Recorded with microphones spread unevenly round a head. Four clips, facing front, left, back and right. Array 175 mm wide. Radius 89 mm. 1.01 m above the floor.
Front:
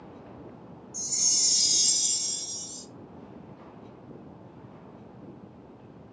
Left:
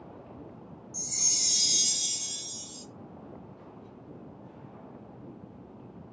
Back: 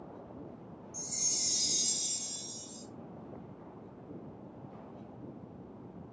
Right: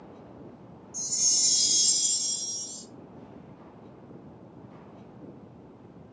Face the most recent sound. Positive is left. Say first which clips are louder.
# even, front 2 dB
turn(degrees=135)